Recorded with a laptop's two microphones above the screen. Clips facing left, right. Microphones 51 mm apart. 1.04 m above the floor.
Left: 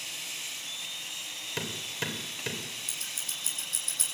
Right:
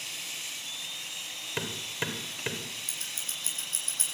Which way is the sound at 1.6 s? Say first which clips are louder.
Right 1 dB; 15° right (ahead or behind).